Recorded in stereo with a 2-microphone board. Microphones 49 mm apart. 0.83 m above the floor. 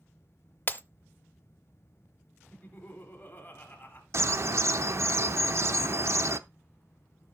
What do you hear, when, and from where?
0.7 s breaking glass: 35° left (ahead or behind), 0.6 m
2.5 s laughter: 30° left (ahead or behind), 3 m
4.1 s a bird: 60° right (ahead or behind), 0.6 m